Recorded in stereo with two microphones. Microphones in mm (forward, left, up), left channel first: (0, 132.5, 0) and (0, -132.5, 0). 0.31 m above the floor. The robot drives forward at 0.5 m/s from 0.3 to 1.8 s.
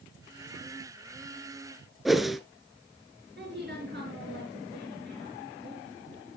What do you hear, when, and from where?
2.0 s a whoosh: centre (ahead or behind), 1.1 m
3.4 s a woman speaking: 40° right (ahead or behind), 5.5 m